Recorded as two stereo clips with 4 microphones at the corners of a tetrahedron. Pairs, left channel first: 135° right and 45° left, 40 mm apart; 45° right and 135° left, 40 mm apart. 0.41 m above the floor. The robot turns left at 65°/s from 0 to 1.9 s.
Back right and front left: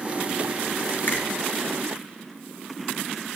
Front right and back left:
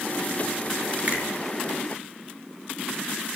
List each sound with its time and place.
1.1 s a finger snap: 170° right, 5.5 m; by 1.2 s straight behind, 5.5 m